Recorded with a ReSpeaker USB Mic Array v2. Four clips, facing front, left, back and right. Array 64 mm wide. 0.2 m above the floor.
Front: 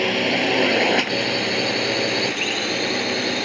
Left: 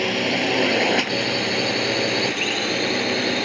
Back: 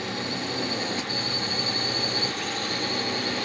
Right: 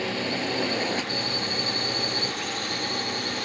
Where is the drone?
25° left; by 3.5 s 60° left.